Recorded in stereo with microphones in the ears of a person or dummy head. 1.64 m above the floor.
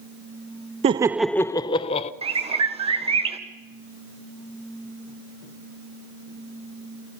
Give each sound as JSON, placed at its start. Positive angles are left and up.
{"t": 0.8, "sound": "laughter", "side_deg": -35, "distance_m": 0.6}
{"t": 2.2, "sound": "a bird", "side_deg": -30, "distance_m": 1.5}